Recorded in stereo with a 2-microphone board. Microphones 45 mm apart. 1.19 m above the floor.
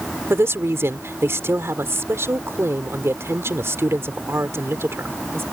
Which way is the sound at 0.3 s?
75° right (ahead or behind).